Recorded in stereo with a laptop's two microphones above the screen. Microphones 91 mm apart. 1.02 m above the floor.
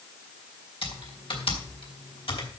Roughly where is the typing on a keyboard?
Left.